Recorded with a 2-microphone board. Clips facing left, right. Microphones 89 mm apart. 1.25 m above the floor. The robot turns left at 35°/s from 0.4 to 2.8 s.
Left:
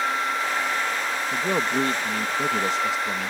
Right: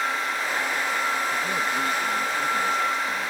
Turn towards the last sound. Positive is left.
turn(degrees=85)